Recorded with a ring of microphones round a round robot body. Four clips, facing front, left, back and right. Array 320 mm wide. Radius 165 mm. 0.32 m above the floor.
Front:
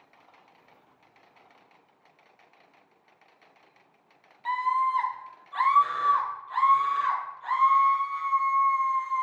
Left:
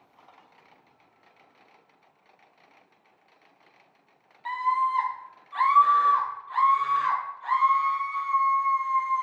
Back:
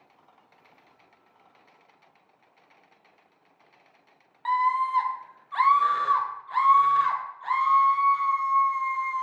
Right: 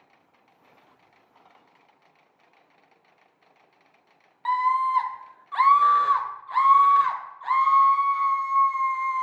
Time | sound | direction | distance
4.5 | a scream | 120° right | 1.7 m